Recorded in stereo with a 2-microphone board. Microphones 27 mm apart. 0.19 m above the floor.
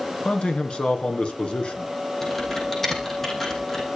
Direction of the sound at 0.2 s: 45° left (ahead or behind).